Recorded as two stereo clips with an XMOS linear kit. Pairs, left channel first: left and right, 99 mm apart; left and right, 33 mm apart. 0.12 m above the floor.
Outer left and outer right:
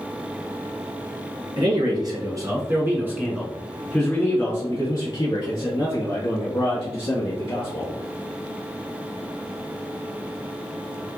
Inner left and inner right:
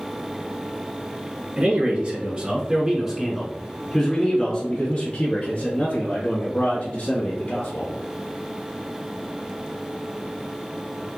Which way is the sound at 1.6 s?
45° right (ahead or behind).